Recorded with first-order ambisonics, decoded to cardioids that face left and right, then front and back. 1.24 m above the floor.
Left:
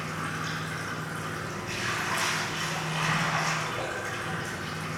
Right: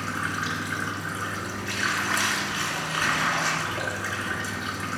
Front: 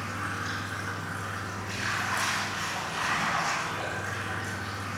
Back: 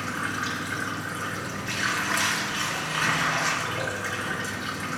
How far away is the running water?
About 3 m.